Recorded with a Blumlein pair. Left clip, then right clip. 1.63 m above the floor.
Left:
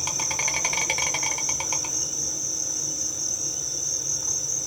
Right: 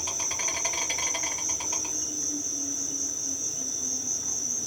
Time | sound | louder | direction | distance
0.0 | an insect | left 4 dB | 60° left | 1.2 m